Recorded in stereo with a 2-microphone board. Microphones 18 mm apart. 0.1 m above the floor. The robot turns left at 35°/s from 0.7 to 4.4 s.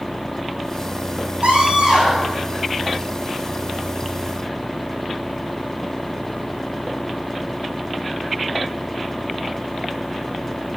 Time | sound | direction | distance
1.4 | a scream | 95° right | 6 m